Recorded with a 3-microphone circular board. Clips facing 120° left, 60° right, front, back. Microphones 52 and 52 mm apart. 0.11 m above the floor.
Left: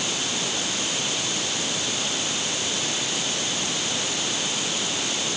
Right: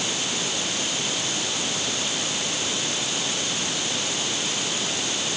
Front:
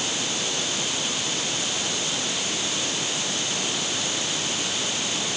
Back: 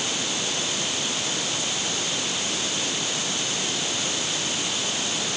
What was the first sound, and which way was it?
Only background noise.